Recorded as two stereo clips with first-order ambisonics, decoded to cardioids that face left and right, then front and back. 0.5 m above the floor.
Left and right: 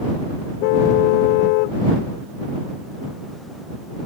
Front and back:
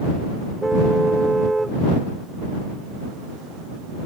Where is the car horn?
95° left.